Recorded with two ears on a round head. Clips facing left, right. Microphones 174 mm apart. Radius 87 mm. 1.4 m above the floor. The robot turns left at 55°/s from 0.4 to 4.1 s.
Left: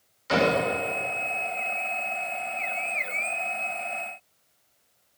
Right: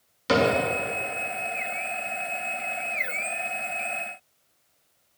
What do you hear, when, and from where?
0.3 s a cupboard door: 75° right (ahead or behind), 2.5 m; by 0.5 s 70° right (ahead or behind), 2.5 m